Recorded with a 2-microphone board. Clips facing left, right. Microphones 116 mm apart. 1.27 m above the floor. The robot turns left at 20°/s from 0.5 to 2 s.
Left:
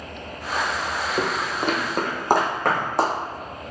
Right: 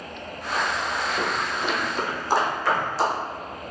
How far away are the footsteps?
About 1.8 m.